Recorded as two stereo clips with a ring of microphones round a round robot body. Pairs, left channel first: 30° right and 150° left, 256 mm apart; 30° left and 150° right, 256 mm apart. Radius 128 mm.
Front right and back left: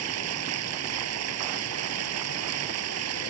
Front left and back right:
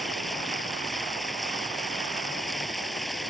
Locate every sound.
0.0 s running water: 120° left